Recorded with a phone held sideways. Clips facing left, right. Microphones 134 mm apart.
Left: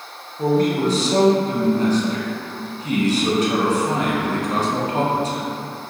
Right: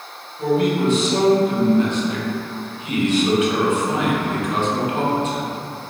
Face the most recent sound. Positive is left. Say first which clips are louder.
# even
turn(degrees=35)  # may be behind; listen again after turning